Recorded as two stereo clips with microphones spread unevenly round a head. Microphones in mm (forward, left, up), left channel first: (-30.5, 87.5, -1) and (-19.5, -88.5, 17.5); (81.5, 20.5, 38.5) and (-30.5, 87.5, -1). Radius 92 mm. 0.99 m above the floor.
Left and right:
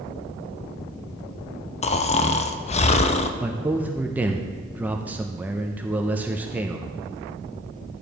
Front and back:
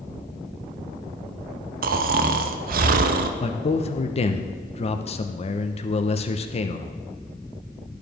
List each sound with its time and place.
1.8 s snoring: 150° left, 0.5 m
3.4 s a man speaking: straight ahead, 0.7 m